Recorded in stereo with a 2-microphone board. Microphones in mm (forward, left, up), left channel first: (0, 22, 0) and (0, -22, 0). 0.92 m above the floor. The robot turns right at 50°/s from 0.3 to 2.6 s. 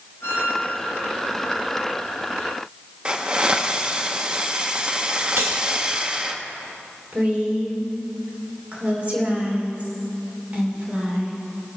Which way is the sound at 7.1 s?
35° right (ahead or behind).